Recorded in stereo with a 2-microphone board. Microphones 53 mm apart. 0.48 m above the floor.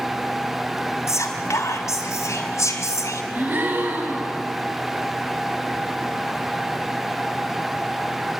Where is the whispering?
70° left (ahead or behind), 3.5 m.